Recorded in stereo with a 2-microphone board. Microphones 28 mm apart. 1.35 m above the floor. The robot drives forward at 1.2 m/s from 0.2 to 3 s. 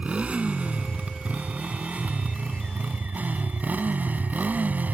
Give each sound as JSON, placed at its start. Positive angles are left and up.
{"t": 0.0, "sound": "a motorcycle", "side_deg": -50}